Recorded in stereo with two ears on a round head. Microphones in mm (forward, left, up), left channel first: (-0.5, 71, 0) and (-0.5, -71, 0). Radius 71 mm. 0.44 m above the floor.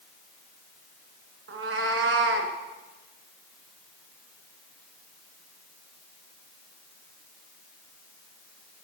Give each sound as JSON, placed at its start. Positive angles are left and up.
{"t": 1.5, "sound": "a cat meowing", "side_deg": -85, "distance_m": 2.0}